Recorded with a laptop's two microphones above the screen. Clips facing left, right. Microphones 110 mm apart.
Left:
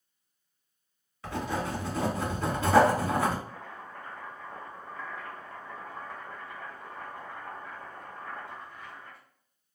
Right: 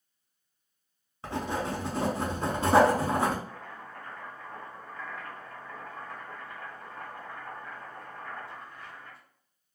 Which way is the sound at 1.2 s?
30° right (ahead or behind).